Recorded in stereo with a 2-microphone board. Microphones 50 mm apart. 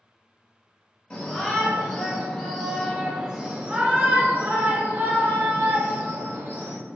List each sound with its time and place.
1.1 s a shout: 25° left (ahead or behind), 1.5 m; by 6.8 s 50° right (ahead or behind), 2 m